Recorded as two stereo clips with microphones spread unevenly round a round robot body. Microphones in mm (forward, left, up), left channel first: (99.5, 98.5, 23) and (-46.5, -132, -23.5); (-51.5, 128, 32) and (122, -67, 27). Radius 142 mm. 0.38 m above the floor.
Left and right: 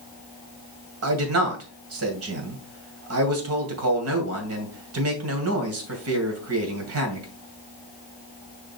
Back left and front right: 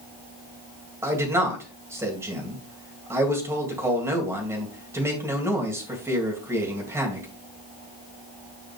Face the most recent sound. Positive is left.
turn(degrees=-125)